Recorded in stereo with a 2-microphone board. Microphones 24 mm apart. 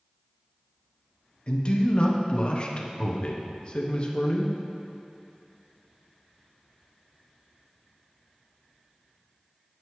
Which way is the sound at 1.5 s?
45° left (ahead or behind).